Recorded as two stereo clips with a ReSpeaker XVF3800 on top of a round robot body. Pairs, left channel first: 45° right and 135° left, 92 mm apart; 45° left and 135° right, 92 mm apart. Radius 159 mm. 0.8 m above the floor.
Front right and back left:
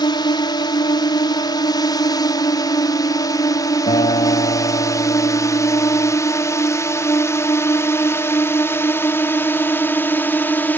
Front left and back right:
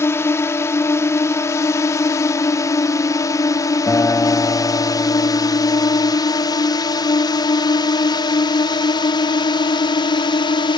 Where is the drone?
15° right; by 10.8 s 25° left.